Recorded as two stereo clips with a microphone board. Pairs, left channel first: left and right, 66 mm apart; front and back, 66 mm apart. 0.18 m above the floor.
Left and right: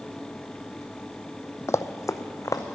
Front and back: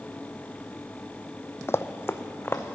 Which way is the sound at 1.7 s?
45° left.